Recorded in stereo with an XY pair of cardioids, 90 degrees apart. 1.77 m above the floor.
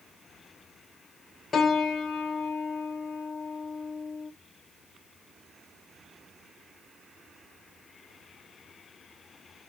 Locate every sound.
1.5 s a piano: 50° left, 1.3 m